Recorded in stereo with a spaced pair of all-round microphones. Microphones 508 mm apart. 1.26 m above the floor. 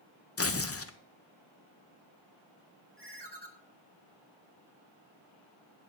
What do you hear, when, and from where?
0.4 s tearing paper: 25° left (ahead or behind), 0.6 m
3.0 s a ringtone: 50° right (ahead or behind), 1.5 m